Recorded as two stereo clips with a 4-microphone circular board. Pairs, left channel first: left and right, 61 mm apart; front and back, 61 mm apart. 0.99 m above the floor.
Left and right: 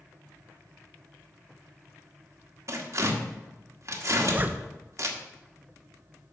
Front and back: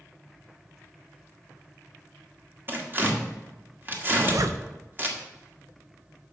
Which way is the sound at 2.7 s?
125° right.